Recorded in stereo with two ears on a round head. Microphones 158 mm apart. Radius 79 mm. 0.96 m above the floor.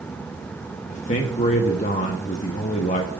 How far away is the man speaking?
About 1.0 m.